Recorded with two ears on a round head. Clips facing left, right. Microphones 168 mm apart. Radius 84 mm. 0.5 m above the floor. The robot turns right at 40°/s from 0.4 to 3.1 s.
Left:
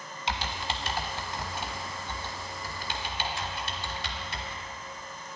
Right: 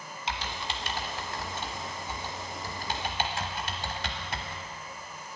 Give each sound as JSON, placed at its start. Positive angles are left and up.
{"t": 0.3, "sound": "typing on a keyboard", "side_deg": 60, "distance_m": 0.8}